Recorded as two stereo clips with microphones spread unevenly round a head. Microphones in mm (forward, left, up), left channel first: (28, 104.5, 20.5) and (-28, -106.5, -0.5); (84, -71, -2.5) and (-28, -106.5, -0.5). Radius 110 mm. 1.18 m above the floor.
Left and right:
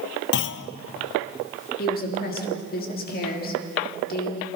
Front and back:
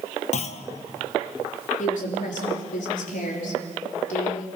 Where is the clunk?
40° left, 0.8 m.